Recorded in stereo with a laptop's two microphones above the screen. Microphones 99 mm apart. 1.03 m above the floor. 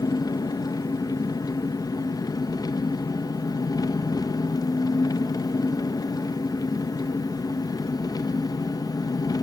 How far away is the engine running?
About 0.9 m.